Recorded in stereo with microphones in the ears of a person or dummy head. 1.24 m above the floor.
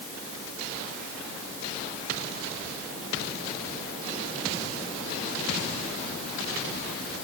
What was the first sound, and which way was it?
Only background noise.